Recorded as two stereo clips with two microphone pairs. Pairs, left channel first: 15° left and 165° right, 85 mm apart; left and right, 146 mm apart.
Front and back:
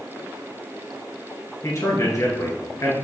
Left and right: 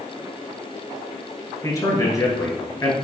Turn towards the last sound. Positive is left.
turn(degrees=35)